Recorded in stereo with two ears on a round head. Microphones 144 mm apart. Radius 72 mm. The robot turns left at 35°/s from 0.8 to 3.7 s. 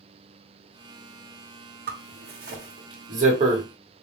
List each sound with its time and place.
1.9 s a zipper: 65° right (ahead or behind), 1.2 m; by 3.6 s 35° right (ahead or behind), 1.2 m